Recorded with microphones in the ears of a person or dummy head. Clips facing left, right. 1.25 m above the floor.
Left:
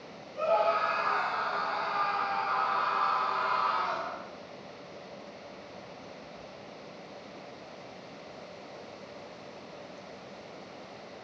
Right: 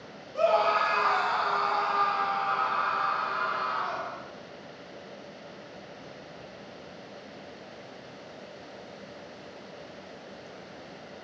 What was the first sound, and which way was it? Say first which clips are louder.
A scream: right 3 dB; 85° right.